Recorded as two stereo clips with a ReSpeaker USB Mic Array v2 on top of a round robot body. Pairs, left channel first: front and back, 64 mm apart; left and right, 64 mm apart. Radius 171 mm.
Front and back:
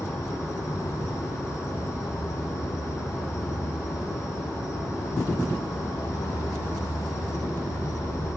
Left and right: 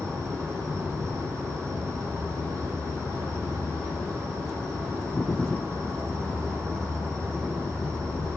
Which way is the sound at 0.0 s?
45° right.